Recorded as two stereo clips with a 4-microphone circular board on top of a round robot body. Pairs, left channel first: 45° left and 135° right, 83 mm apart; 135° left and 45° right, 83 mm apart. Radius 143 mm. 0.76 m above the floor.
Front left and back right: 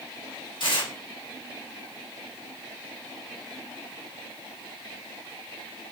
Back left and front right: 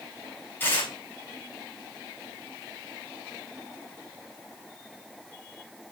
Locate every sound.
0.6 s tearing paper: 70° left, 3.5 m